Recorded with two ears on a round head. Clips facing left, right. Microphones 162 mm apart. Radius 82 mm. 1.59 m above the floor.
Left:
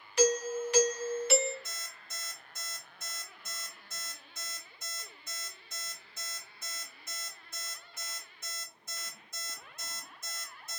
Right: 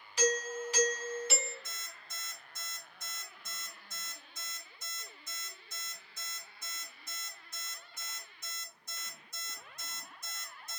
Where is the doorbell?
50° left (ahead or behind), 0.6 m.